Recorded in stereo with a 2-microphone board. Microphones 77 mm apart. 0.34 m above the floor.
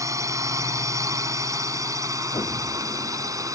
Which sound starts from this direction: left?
An explosion, at 2.3 s.